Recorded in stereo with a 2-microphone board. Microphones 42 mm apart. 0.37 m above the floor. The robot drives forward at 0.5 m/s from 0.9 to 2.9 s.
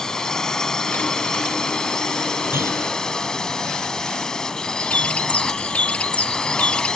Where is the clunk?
75° right (ahead or behind).